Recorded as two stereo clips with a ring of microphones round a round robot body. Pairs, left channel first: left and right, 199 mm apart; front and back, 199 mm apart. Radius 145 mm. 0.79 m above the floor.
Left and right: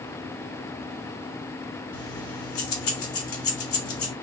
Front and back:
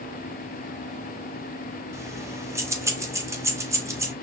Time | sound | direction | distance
1.9 | keys jangling | 105° left | 1.5 m